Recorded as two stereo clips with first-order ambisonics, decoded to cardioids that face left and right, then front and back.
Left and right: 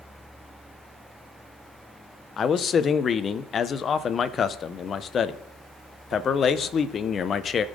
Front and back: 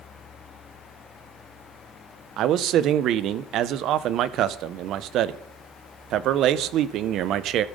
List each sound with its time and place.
2.4 s a man speaking: 150° left, 0.5 m